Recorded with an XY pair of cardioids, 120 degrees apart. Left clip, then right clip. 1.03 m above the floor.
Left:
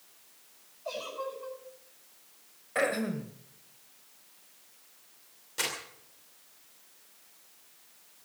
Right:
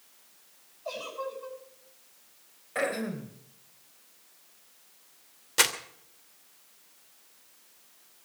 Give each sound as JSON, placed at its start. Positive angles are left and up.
{"t": 0.8, "sound": "a giggle", "azimuth_deg": -5, "distance_m": 8.5}
{"t": 2.8, "sound": "throat clearing", "azimuth_deg": 10, "distance_m": 2.5}
{"t": 5.6, "sound": "crumpling", "azimuth_deg": -60, "distance_m": 2.5}